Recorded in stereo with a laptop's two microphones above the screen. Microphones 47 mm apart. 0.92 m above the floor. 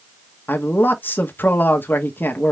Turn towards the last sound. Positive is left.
turn(degrees=50)  # may be behind; listen again after turning